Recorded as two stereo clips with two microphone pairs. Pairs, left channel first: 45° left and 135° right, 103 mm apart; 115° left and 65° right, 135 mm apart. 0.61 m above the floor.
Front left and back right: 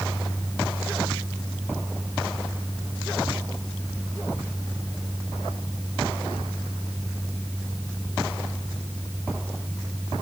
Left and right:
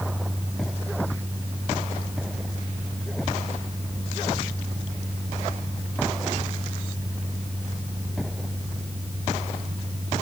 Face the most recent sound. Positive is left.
No sound to turn to.